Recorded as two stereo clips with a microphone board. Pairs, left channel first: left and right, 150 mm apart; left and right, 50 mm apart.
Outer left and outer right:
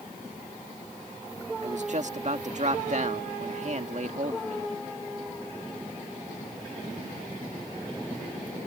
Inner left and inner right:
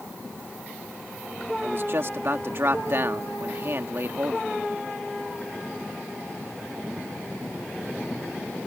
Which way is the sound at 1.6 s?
50° right (ahead or behind).